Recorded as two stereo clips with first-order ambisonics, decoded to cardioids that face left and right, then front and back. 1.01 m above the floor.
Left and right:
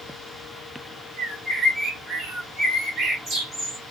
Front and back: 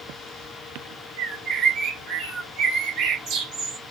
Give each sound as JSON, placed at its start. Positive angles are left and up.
{"t": 1.2, "sound": "a bird", "azimuth_deg": -155, "distance_m": 1.2}